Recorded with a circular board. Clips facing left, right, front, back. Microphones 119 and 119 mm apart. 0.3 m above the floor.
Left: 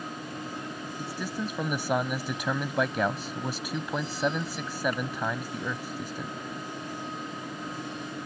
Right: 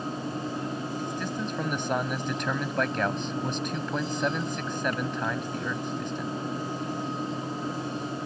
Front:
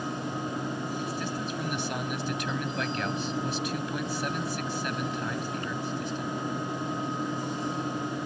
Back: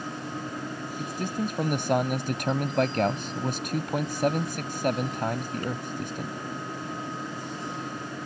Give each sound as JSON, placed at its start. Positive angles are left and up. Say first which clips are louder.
{"t": 1.0, "sound": "a man speaking", "louder": "right 2 dB, back 2 dB", "azimuth_deg": 170}